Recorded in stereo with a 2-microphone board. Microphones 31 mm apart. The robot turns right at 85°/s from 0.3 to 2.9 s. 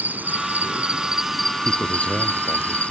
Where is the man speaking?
10° left; by 2.9 s 115° left.